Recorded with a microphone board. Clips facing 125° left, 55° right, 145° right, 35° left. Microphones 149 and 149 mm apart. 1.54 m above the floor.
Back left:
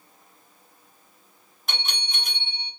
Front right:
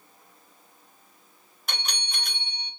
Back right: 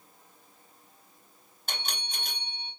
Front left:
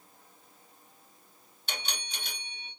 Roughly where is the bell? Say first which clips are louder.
Back left 1 dB, back right 1 dB; behind right.